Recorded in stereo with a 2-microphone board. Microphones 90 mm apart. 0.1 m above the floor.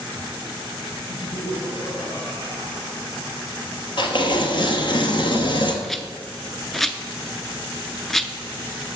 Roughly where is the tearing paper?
Left.